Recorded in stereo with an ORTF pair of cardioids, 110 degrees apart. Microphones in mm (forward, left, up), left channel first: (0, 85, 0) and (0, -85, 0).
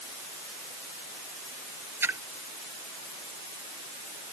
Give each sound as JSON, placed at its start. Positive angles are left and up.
{"t": 2.0, "sound": "a splash", "azimuth_deg": -15}